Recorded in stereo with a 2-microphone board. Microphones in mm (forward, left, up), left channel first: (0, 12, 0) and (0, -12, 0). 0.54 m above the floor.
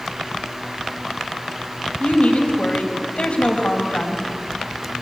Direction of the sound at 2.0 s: 70° left (ahead or behind).